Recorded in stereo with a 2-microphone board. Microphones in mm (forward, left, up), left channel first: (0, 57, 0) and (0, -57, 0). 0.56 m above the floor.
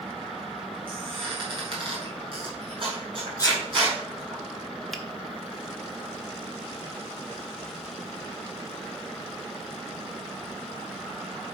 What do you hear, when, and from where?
0.9 s a squeak: 50° right (ahead or behind), 4.5 m
3.4 s a sneeze: 35° left (ahead or behind), 1.0 m
4.9 s a finger snap: centre (ahead or behind), 1.0 m